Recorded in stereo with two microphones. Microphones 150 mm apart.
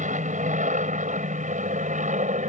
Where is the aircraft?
55° right (ahead or behind).